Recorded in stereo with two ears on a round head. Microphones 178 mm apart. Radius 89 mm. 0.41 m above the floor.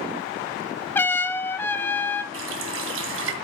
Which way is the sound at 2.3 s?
70° right (ahead or behind).